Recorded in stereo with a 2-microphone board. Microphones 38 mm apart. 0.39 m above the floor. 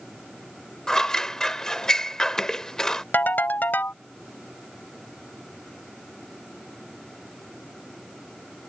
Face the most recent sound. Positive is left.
turn(degrees=60)  # may be behind; listen again after turning